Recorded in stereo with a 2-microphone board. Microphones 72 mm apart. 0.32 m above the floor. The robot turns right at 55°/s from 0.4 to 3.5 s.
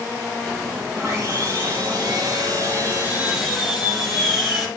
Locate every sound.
1.0 s sawing: 145° right, 3 m; by 4.7 s 5° right, 3 m